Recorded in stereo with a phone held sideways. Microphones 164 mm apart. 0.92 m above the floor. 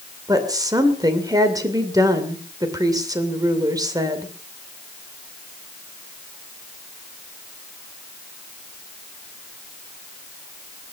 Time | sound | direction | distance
0.3 | a woman speaking | 25° right (ahead or behind) | 2.5 m